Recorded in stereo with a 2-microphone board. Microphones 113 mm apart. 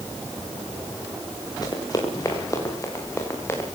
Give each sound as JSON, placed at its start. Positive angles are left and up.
{"t": 1.6, "sound": "running footsteps", "side_deg": 35, "distance_m": 7.5}